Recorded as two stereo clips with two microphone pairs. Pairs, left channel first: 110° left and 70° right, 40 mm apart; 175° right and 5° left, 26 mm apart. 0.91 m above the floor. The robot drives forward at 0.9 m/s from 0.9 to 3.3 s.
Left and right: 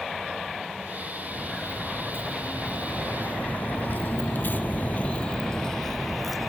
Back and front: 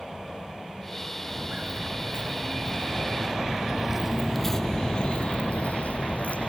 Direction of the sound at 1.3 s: 45° left.